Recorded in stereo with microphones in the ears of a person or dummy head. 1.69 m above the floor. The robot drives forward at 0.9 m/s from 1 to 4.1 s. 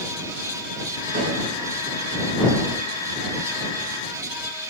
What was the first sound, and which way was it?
A snare drum, 50° right (ahead or behind).